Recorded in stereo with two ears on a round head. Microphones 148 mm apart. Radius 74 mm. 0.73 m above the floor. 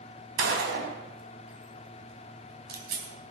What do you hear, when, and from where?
0.4 s a gunshot: 70° right (ahead or behind), 3.5 m